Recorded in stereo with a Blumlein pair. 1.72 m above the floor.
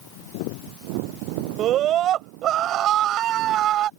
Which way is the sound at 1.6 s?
35° right.